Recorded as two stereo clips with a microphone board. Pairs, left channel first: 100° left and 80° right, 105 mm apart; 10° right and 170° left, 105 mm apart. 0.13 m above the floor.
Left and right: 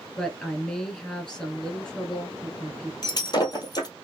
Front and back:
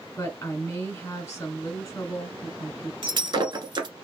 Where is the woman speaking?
25° left, 1.7 m.